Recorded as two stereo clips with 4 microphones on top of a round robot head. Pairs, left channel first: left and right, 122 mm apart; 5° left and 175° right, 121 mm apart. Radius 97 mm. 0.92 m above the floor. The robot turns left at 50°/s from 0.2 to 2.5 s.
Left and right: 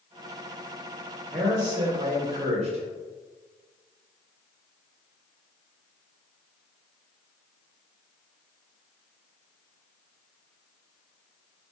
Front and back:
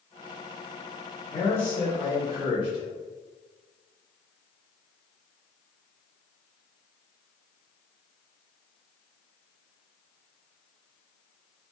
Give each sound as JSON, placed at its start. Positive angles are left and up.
{"t": 1.3, "sound": "a man speaking", "azimuth_deg": -45, "distance_m": 0.7}